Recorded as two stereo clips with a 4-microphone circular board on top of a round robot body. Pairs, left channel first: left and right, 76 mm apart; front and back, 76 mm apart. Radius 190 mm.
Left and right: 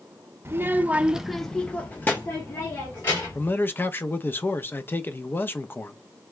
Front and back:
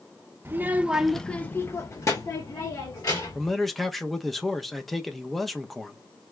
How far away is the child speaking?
About 0.9 m.